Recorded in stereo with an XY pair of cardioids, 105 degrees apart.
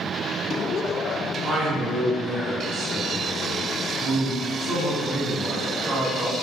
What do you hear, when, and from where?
1.4 s a man speaking: 45° right, 1.8 m